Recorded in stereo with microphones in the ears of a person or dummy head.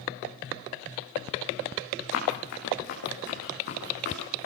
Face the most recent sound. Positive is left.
turn(degrees=55)  # may be behind; listen again after turning